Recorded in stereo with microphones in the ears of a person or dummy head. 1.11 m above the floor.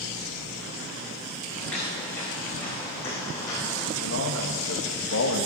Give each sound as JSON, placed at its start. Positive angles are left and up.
{"t": 1.6, "sound": "footsteps", "side_deg": 5, "distance_m": 5.0}
{"t": 4.0, "sound": "a man speaking", "side_deg": 70, "distance_m": 1.5}